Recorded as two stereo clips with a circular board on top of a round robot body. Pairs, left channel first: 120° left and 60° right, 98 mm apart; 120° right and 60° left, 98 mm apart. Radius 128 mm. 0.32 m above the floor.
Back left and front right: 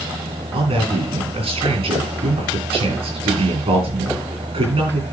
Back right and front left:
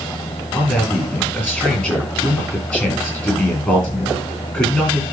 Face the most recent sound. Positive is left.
turn(degrees=-50)